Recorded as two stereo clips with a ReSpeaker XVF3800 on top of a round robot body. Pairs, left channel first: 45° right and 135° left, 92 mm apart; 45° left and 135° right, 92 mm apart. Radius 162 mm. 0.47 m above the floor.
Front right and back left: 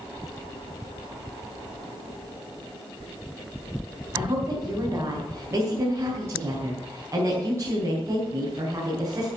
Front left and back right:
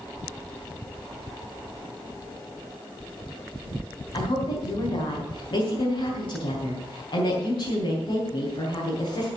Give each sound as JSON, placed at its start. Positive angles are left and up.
{"t": 4.1, "sound": "a woman speaking", "azimuth_deg": 75, "distance_m": 4.0}